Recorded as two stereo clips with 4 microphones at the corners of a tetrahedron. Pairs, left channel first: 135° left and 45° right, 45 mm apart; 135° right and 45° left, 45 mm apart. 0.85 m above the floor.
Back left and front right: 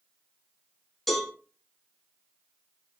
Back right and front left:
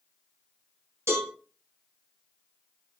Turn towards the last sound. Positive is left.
turn(degrees=45)